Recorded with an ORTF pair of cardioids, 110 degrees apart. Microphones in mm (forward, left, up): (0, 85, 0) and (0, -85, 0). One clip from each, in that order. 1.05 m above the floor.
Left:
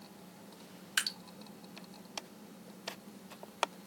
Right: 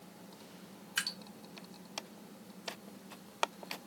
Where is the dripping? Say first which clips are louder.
Left 2 dB; 30° left, 0.8 m.